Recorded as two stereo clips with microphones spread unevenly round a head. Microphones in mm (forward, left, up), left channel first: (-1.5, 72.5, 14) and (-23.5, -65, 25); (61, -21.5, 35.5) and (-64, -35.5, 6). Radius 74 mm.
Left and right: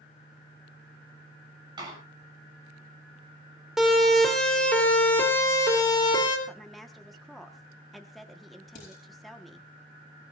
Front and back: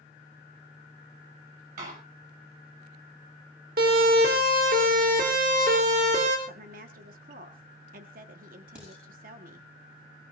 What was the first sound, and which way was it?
A door slam, 160° right.